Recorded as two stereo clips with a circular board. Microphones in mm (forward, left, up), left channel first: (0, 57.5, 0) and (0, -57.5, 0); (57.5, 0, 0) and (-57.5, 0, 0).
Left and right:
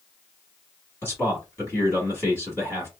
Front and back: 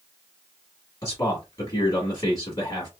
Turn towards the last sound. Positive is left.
turn(degrees=35)